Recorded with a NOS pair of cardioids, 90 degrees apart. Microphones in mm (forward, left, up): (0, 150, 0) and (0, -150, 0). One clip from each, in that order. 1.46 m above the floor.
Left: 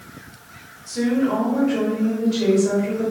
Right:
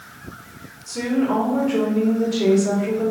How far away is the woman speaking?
About 1.5 m.